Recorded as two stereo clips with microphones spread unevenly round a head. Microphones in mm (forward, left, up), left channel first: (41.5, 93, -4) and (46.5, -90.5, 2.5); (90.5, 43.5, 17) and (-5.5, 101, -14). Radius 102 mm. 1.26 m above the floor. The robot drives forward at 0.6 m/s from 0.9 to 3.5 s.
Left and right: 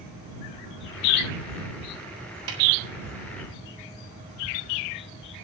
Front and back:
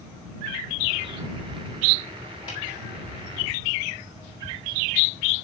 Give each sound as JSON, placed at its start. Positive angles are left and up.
{"t": 2.5, "sound": "a snare drum", "azimuth_deg": -100, "distance_m": 6.0}